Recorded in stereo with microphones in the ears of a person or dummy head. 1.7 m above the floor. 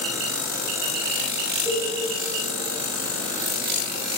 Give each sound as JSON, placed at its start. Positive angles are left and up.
{"t": 1.6, "sound": "a cowbell", "side_deg": 0, "distance_m": 0.9}